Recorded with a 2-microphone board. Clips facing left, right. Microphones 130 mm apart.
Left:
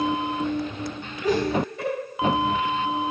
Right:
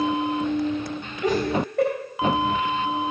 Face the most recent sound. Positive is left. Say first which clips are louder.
# even
turn(degrees=-60)  # may be behind; listen again after turning